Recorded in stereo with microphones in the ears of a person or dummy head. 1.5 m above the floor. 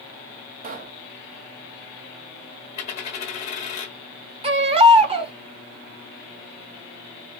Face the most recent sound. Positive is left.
turn(degrees=-30)  # may be behind; listen again after turning